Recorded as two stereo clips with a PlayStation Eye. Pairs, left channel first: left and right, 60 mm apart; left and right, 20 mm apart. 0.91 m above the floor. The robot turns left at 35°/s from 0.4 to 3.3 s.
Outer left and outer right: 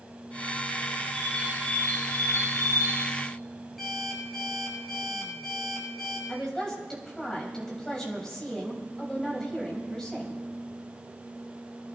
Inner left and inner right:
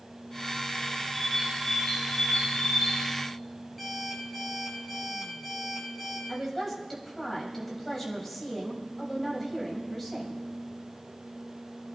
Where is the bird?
175° right, 6 m; by 3.1 s 120° left, 6 m.